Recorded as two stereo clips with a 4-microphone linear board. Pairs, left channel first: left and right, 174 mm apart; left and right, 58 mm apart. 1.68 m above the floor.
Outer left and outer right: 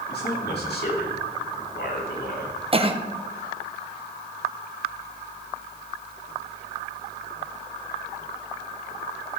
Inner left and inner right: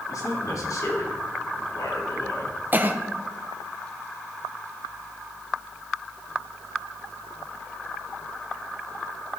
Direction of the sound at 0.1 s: 70° left (ahead or behind).